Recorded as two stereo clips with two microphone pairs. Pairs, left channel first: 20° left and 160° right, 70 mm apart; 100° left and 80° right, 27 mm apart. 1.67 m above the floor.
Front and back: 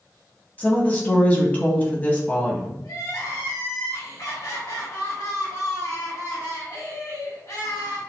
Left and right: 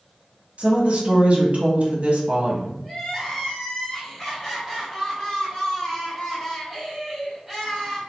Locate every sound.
0.6 s a woman speaking: 45° right, 0.9 m
2.8 s crying: 20° left, 1.5 m